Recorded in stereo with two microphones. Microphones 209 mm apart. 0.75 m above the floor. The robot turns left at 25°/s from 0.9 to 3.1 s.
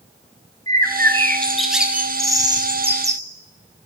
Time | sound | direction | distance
0.7 | a bird | 20° left | 0.8 m